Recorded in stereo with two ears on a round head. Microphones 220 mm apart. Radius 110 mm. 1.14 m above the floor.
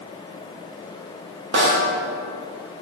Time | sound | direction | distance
1.5 | a snare drum | 45° right (ahead or behind) | 1.9 m